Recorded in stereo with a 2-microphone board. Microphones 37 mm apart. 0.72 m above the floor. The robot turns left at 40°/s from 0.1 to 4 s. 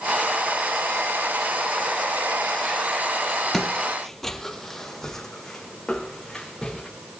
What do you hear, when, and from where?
3.5 s footsteps: 5° left (ahead or behind), 0.7 m; by 6.9 s 10° left (ahead or behind), 4.5 m